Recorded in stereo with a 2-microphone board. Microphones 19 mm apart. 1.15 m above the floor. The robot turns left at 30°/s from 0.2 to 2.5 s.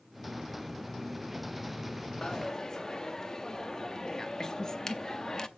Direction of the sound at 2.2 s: 35° left (ahead or behind).